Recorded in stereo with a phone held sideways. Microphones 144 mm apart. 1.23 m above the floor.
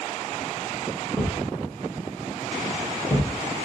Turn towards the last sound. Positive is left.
turn(degrees=5)  # may be behind; listen again after turning